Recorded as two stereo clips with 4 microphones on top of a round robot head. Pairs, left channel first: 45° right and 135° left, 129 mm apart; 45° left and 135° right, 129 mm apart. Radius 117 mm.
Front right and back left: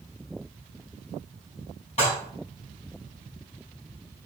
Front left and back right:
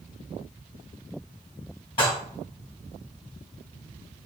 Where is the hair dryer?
No hair dryer in this recording.